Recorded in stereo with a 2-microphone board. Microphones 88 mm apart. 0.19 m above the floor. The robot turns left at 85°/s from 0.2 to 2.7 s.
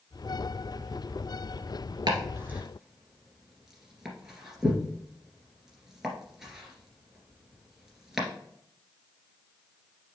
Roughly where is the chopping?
Right.